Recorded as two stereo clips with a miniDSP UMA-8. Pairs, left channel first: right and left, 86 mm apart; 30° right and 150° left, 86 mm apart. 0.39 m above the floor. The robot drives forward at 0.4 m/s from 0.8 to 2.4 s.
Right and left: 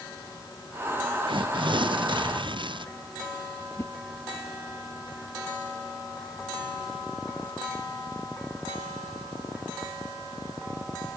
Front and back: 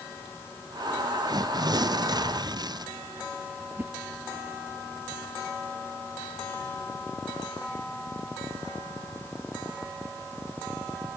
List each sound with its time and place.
1.3 s tearing paper: 110° left
3.8 s a whoosh: 145° right